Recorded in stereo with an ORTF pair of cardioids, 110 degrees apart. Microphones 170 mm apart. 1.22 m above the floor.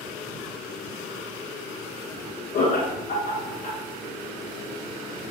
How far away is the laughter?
About 1.3 m.